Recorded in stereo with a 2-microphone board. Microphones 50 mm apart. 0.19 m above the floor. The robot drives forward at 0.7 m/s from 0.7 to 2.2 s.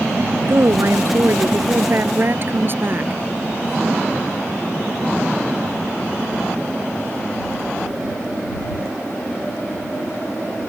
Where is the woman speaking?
60° right (ahead or behind); by 3.2 s 45° right (ahead or behind).